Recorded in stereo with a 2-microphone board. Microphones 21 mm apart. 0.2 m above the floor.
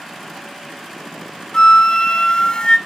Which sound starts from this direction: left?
A flute, at 1.5 s.